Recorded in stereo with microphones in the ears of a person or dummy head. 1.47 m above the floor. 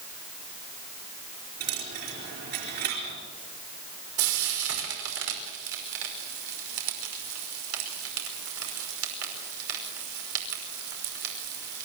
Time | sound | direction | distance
1.6 | a dropped coin | 50° right (ahead or behind) | 5 m
4.2 | frying | 85° right | 5.5 m